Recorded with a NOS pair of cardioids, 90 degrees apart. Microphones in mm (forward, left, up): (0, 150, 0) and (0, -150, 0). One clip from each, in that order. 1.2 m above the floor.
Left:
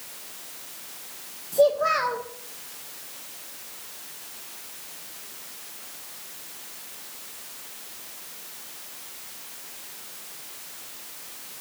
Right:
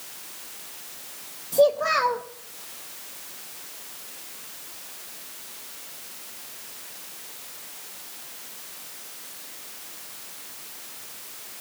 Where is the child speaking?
15° right, 0.6 m.